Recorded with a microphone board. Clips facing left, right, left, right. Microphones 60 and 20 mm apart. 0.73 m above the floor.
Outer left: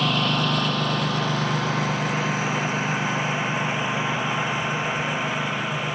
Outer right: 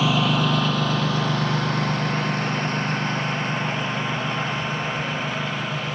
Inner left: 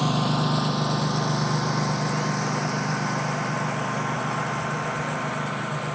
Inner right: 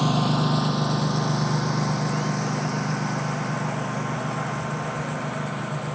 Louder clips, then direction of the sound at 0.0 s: Outer right 2 dB, inner right 1 dB; 5° right (ahead or behind).